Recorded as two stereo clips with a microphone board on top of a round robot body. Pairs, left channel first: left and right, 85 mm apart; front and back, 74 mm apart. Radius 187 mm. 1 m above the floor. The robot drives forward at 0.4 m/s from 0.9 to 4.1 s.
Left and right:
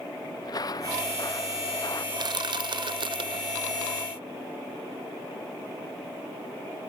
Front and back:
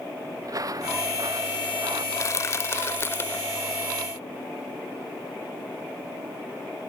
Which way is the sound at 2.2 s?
50° right.